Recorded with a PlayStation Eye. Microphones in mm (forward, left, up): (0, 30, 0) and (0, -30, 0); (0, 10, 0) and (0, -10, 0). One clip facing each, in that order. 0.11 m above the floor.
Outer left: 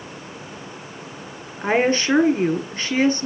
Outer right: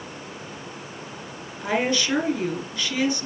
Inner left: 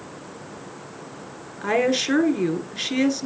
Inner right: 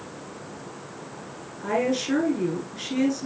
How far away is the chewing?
No chewing in this recording.